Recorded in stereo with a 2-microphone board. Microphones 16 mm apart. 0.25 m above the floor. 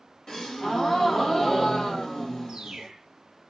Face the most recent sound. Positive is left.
turn(degrees=-45)  # may be behind; listen again after turning